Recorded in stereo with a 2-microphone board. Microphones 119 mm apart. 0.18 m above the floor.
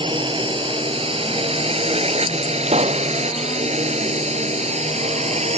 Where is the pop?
65° right (ahead or behind).